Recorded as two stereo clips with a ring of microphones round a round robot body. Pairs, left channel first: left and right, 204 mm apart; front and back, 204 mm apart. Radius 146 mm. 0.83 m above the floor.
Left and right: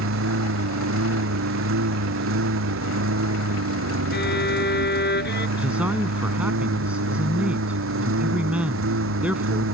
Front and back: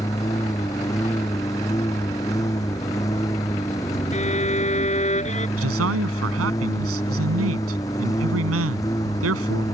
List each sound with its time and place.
0.0 s a lawn mower: 80° right
4.1 s a violin: 55° left
5.6 s a man speaking: 175° right